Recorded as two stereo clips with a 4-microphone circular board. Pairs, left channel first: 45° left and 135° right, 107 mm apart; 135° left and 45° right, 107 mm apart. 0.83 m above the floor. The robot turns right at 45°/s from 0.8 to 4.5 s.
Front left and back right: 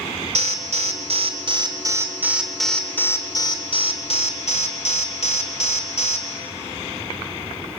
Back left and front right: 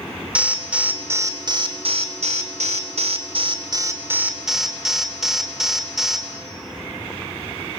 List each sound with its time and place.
0.3 s an alarm: 125° right, 3 m; by 6.3 s 40° left, 3 m